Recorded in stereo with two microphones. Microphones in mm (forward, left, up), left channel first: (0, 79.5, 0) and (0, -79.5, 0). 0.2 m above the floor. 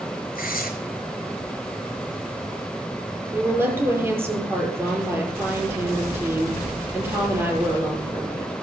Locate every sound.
0.3 s tearing paper: 65° left (ahead or behind), 4 m
3.3 s a woman speaking: 15° right (ahead or behind), 5 m